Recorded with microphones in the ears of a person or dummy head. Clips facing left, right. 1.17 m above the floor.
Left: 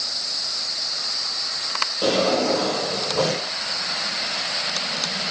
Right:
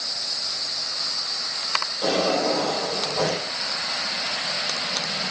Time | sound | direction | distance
2.0 | a drawer | 45° left (ahead or behind) | 9 m